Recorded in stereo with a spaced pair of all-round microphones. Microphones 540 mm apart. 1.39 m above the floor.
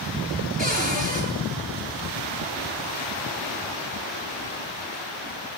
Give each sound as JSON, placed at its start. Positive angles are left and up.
{"t": 0.6, "sound": "a cupboard door", "side_deg": -15, "distance_m": 9.5}